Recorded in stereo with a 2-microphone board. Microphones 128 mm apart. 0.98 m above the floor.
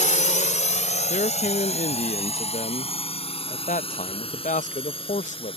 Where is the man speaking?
75° left (ahead or behind).